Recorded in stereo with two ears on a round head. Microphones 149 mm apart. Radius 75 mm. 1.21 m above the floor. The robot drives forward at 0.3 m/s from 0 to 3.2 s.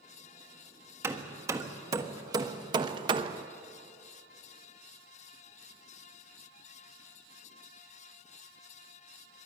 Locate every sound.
1.0 s hammering: 15° right (ahead or behind), 1.4 m; by 3.5 s 25° right (ahead or behind), 0.8 m